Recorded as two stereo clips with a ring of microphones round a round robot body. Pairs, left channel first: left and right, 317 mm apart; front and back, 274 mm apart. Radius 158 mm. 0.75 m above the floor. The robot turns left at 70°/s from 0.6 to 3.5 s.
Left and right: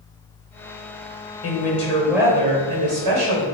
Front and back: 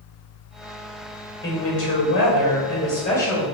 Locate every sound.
1.4 s a woman speaking: 45° left, 2.5 m; by 3.4 s 95° right, 2.5 m